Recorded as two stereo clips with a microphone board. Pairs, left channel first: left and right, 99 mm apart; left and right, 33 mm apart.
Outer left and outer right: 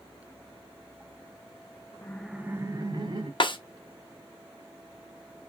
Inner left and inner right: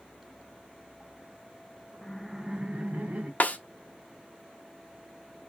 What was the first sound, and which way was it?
Laughter, 20° left (ahead or behind).